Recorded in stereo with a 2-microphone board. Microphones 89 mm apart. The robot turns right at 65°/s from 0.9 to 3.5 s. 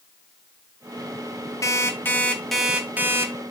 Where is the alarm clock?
120° left, 0.6 m; by 3.3 s 130° right, 0.6 m.